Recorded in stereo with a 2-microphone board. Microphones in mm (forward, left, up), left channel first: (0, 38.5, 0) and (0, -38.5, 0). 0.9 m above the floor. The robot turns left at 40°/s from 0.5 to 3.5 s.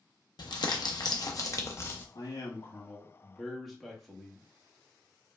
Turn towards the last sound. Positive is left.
turn(degrees=0)